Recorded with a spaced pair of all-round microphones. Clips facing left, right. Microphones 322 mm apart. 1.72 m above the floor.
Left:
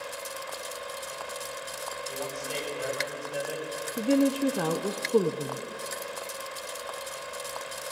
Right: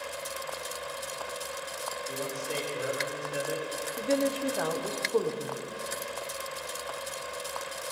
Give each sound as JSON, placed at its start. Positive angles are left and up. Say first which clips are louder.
{"t": 2.1, "sound": "a man speaking", "louder": "right 1 dB", "side_deg": -30, "distance_m": 5.5}
{"t": 4.0, "sound": "a woman speaking", "louder": "left 5 dB", "side_deg": 40, "distance_m": 0.6}